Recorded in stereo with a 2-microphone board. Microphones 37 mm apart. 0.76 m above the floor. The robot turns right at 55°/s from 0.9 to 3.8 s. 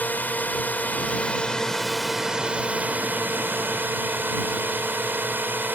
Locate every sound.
0.0 s a drone: 125° left; by 5.8 s 80° right